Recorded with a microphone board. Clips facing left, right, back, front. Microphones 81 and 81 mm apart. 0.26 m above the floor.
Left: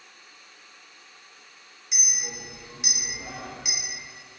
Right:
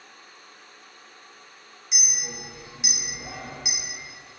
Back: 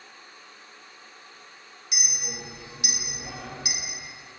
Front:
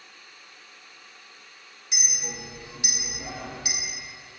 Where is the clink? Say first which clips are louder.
Right 1 dB, front 1 dB; straight ahead, 0.9 m.